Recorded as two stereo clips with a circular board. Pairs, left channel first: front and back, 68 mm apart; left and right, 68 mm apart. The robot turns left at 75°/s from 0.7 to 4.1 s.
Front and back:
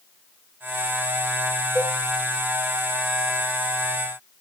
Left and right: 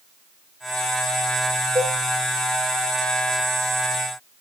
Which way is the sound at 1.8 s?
90° right.